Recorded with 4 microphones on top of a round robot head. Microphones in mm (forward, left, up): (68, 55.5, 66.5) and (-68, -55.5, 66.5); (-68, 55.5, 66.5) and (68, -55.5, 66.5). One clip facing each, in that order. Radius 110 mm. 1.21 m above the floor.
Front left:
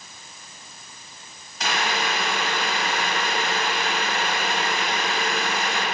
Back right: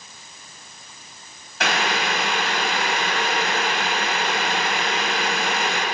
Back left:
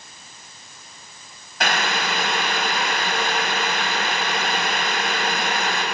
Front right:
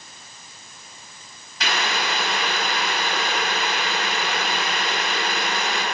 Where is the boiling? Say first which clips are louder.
Back right 2 dB, back left 2 dB; 175° right, 7 m.